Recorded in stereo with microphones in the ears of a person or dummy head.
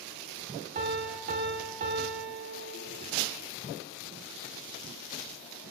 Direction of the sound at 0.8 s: 50° right (ahead or behind).